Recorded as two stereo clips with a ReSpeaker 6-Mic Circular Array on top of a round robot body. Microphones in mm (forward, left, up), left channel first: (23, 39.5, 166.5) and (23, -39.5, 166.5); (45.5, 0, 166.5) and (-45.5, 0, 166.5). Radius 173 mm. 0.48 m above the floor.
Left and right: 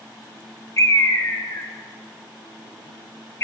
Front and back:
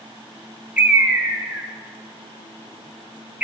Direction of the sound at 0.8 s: 115° left.